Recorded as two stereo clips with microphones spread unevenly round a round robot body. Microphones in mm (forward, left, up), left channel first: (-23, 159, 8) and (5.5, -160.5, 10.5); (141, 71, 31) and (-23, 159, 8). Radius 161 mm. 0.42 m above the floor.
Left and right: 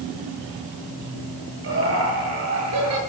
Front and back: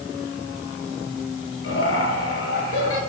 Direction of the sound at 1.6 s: 35° right.